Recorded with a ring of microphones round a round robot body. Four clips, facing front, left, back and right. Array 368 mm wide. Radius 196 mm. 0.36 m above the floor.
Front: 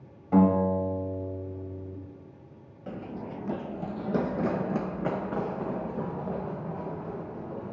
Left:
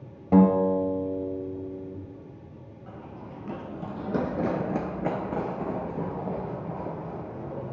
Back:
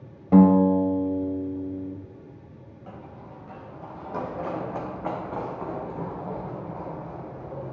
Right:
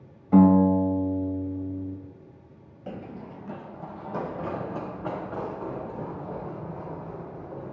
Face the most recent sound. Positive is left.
turn(degrees=65)